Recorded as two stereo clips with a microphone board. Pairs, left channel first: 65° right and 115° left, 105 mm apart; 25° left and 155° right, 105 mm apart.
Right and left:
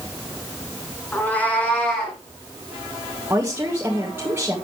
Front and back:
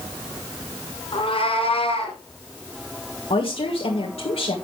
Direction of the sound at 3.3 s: 45° left.